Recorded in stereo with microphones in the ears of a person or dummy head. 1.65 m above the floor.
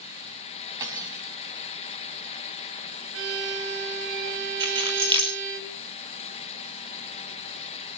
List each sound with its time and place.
0.8 s cutlery clinking: 15° right (ahead or behind), 6 m
3.1 s a violin: 70° right (ahead or behind), 3.5 m
4.6 s keys jangling: 25° right (ahead or behind), 5 m